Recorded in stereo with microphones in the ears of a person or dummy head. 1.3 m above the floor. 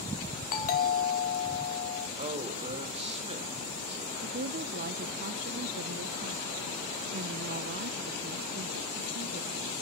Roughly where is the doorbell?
Left.